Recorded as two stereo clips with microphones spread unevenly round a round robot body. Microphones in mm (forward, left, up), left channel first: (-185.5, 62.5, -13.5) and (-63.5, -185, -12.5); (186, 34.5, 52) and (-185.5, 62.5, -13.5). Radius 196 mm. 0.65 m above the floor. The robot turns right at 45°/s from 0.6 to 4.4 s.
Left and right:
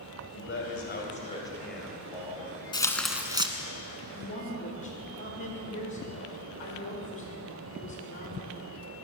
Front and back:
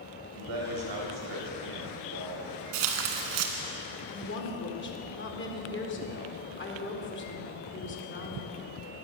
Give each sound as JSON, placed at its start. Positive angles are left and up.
{"t": 0.3, "sound": "a man speaking", "azimuth_deg": 155, "distance_m": 3.5}
{"t": 2.7, "sound": "tearing paper", "azimuth_deg": -170, "distance_m": 1.5}
{"t": 4.1, "sound": "a woman speaking", "azimuth_deg": 45, "distance_m": 2.0}